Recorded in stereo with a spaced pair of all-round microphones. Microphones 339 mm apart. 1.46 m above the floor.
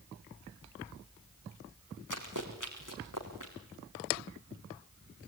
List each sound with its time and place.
2.1 s running footsteps: 60° left (ahead or behind), 4.5 m; by 3.5 s 65° left (ahead or behind), 6 m